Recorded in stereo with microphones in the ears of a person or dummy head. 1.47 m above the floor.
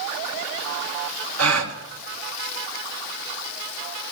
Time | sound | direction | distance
1.4 | a gasp | 85° right | 1.7 m